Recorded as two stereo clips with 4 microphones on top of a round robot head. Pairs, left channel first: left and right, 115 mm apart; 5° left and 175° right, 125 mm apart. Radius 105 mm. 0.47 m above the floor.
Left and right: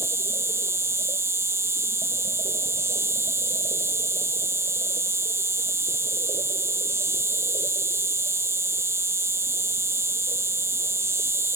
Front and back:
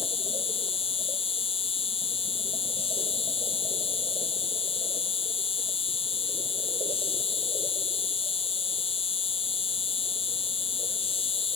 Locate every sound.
0.0 s an insect: 25° right